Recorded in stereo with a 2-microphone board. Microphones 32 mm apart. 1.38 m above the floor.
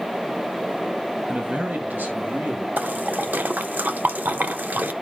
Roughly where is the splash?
Right.